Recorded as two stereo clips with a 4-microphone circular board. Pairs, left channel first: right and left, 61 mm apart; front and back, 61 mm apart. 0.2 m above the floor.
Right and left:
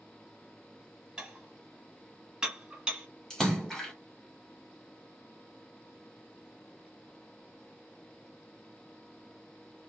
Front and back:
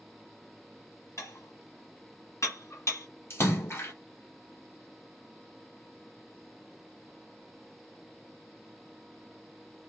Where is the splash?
10° right, 1.1 m.